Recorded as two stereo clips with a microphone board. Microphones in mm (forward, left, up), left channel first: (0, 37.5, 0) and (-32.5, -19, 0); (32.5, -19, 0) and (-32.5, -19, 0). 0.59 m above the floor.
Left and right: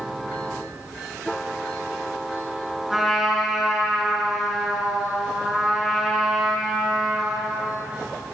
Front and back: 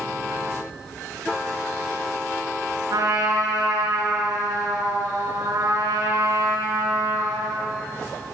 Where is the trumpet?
150° left, 7 m.